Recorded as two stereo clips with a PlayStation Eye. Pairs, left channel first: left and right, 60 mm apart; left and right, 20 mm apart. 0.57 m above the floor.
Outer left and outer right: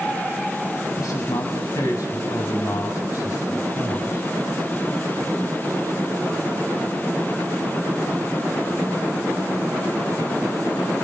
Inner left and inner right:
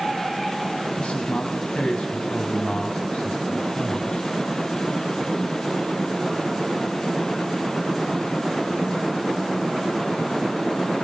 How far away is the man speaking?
About 4.5 m.